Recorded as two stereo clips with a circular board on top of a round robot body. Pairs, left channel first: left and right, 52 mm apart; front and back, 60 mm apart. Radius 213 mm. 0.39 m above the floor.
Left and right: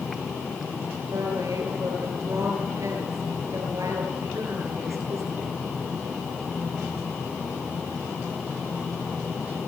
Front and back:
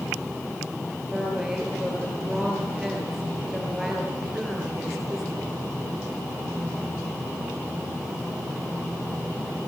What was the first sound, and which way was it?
A woman speaking, 95° right.